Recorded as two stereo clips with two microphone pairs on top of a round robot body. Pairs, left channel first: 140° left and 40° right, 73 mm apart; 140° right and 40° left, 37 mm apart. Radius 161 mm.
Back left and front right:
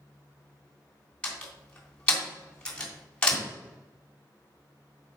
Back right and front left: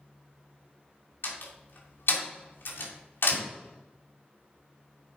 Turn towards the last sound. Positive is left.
turn(degrees=-145)